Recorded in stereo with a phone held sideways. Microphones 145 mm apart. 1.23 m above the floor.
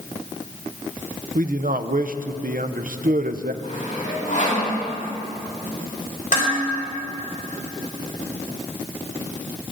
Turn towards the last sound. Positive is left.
turn(degrees=60)  # may be behind; listen again after turning